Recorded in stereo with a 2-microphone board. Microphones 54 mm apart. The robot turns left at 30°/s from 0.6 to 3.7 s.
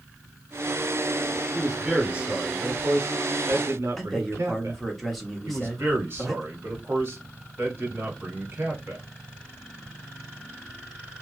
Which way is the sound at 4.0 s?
Centre (ahead or behind).